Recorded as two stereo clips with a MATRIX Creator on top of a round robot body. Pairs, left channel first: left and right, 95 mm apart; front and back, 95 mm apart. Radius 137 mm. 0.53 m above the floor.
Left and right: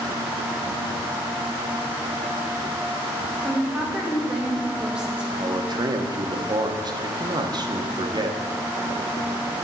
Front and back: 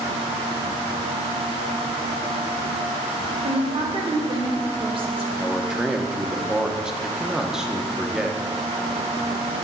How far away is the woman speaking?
About 2.5 m.